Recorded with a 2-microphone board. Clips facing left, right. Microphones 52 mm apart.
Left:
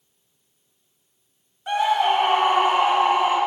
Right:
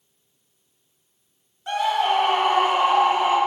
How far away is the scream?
About 1.1 m.